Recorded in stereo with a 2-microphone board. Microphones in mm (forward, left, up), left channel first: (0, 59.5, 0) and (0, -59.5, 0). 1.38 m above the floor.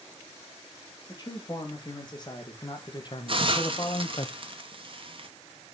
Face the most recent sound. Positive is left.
turn(degrees=-45)  # may be behind; listen again after turning